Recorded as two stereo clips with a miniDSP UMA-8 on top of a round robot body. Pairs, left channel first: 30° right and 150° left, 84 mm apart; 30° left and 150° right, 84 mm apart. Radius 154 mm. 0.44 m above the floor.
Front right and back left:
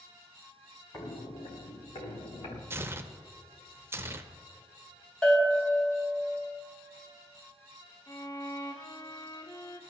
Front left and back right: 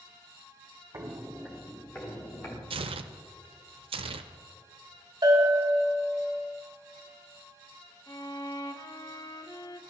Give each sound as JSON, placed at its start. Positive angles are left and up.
{"t": 0.9, "sound": "footsteps", "azimuth_deg": -95, "distance_m": 0.9}
{"t": 2.7, "sound": "tearing paper", "azimuth_deg": -145, "distance_m": 0.6}
{"t": 5.2, "sound": "a bell", "azimuth_deg": -110, "distance_m": 4.0}
{"t": 8.1, "sound": "a violin", "azimuth_deg": -5, "distance_m": 1.6}